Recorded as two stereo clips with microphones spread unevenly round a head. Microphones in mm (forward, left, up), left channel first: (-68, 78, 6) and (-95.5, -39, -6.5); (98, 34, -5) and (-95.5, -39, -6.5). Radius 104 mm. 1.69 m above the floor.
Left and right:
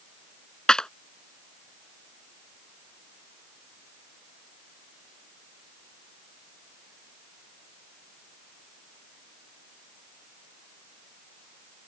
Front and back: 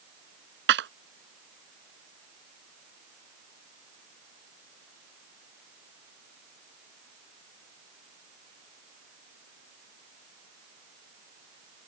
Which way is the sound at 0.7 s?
160° left.